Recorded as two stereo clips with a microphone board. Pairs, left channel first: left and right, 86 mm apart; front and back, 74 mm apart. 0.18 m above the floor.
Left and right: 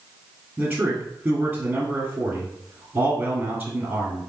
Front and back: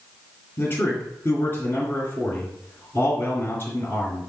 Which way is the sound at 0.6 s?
25° right.